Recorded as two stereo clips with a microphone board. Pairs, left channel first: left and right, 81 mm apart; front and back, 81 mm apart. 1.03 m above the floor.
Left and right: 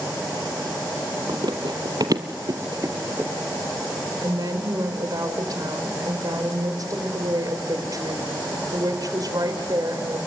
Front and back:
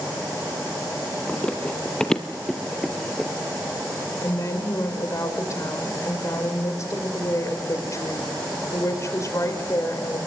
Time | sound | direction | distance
1.3 | running footsteps | 75° right | 2 m
4.2 | a woman speaking | 50° right | 4 m